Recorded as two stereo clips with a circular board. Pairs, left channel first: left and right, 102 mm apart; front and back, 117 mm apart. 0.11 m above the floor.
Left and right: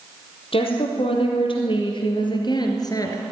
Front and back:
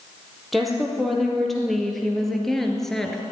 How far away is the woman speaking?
About 3.5 m.